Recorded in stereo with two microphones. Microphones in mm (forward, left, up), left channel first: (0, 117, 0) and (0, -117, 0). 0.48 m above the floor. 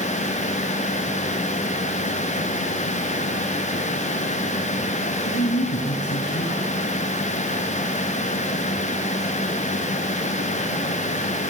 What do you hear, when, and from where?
5.2 s a woman speaking: 50° left (ahead or behind), 6 m